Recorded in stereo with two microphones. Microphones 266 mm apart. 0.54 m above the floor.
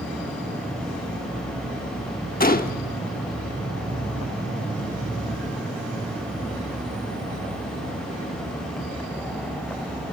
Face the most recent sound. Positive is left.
turn(degrees=35)  # may be behind; listen again after turning